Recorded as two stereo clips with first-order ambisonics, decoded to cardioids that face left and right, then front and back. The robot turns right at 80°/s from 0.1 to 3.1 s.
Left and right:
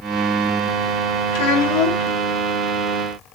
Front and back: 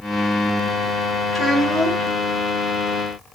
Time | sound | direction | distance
1.3 | a child speaking | 75° left | 1.4 m